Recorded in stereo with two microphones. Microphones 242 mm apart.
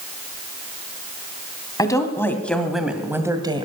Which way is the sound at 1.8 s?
15° left (ahead or behind).